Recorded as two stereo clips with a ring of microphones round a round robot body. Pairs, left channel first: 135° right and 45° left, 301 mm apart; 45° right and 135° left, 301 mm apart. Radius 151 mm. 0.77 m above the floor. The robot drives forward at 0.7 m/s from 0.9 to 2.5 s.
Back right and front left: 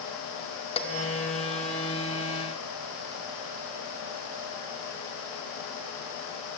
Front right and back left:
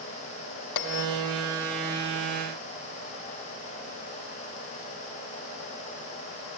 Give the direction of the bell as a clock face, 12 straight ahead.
2 o'clock.